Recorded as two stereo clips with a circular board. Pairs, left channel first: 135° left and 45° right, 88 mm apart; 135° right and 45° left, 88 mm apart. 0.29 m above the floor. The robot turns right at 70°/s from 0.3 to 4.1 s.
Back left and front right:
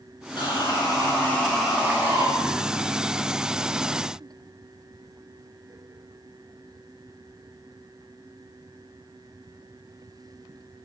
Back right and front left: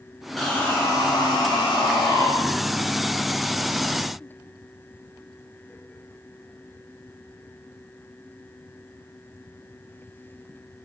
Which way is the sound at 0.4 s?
135° left.